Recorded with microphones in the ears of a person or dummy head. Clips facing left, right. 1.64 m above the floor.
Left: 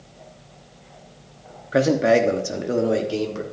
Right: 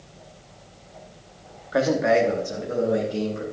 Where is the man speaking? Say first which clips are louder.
Left 3 dB; 30° left (ahead or behind), 1.0 m; by 3.4 s 90° left, 1.6 m.